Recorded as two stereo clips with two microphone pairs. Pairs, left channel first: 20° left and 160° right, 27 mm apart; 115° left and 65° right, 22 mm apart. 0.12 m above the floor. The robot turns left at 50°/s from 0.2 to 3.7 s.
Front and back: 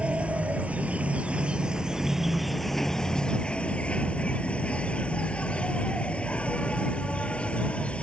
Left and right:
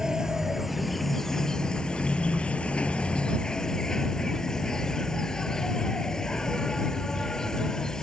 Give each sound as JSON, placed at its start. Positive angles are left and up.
{"t": 0.0, "sound": "an insect", "azimuth_deg": -130}